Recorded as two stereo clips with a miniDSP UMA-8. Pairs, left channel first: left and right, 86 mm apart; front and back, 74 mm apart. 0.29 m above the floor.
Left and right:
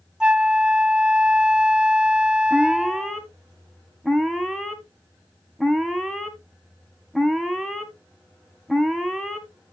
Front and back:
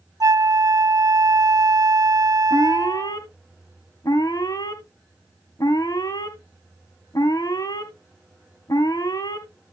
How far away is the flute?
About 0.8 m.